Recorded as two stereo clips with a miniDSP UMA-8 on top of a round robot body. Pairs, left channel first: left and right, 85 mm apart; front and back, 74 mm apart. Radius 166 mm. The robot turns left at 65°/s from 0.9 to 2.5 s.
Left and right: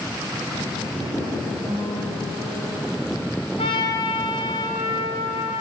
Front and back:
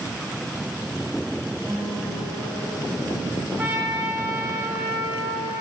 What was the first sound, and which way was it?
A guitar, 125° right.